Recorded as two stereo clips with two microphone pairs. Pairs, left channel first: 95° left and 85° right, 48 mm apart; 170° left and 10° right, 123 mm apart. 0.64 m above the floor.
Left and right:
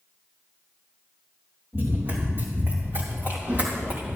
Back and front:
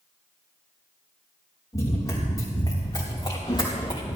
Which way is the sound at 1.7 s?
125° right.